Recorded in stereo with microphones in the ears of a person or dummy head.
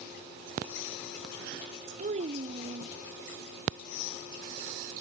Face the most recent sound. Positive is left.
turn(degrees=-40)  # may be behind; listen again after turning